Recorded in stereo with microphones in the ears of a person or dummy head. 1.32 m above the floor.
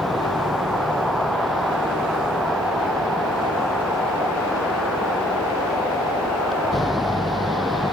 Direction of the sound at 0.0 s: Centre (ahead or behind).